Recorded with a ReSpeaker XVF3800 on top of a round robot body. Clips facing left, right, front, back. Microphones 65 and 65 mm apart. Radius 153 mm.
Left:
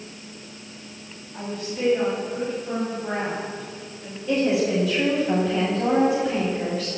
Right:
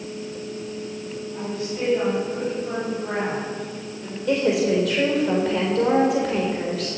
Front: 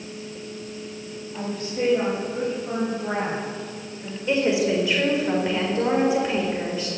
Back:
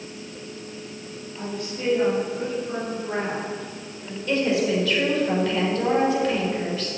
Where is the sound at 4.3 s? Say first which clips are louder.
Right 1 dB, front 1 dB; 70° right, 4.5 m.